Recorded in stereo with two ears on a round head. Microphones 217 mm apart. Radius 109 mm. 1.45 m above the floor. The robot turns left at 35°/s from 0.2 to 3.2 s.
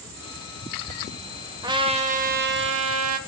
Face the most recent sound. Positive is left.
turn(degrees=-75)